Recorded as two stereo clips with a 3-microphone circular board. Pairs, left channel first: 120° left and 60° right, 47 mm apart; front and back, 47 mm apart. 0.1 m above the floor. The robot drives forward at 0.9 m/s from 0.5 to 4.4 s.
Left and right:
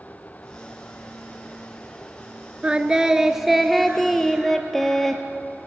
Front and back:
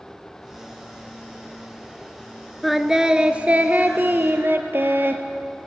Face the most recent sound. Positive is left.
turn(degrees=-160)